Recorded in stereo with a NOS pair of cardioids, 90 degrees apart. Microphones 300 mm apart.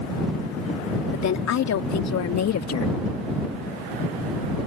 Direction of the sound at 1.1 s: 60° left.